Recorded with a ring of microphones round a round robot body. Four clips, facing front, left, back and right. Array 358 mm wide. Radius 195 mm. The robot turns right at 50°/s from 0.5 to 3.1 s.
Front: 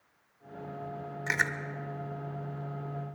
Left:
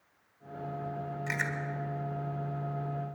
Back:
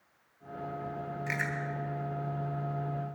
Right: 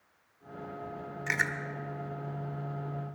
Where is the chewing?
30° right, 1.0 m; by 1.5 s 15° right, 1.0 m.